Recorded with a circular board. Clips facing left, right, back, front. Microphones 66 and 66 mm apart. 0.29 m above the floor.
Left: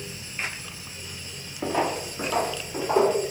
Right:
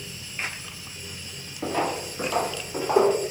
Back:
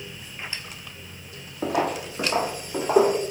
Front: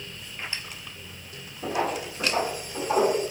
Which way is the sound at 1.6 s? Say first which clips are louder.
Left 1 dB, back 3 dB; 165° left.